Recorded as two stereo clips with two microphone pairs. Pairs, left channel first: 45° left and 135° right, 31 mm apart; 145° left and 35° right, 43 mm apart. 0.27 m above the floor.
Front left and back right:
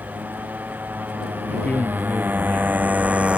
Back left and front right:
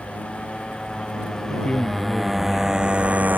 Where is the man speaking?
80° left.